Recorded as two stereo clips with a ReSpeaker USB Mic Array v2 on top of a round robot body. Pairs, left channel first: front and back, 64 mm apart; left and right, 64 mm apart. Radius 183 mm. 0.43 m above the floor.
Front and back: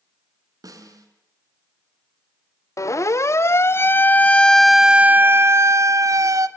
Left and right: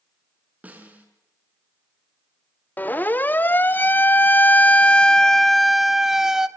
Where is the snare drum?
160° right, 4.5 m.